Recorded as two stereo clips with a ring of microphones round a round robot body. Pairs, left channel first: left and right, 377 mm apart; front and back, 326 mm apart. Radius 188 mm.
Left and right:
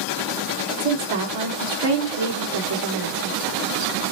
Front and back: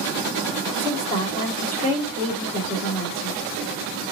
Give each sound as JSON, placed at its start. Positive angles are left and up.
{"t": 0.8, "sound": "a woman speaking", "azimuth_deg": -105, "distance_m": 1.6}